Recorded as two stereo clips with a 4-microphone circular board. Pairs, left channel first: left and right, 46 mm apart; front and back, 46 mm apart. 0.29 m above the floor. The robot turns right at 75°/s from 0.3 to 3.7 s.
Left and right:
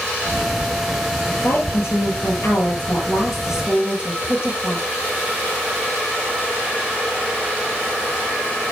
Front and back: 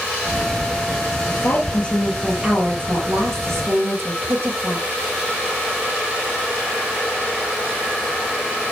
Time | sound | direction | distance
1.3 | a woman speaking | 30° left | 6.5 m